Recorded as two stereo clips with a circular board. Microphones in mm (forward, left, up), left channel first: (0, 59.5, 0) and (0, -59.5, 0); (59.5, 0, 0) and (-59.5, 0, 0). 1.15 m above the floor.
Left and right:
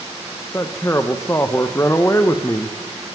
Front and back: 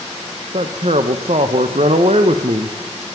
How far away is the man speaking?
About 0.7 m.